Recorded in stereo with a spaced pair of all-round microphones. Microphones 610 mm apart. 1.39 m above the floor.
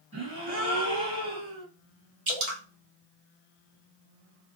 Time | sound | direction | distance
0.1 | a gasp | 25° left (ahead or behind) | 1.6 m
2.3 | dripping | 55° right (ahead or behind) | 0.8 m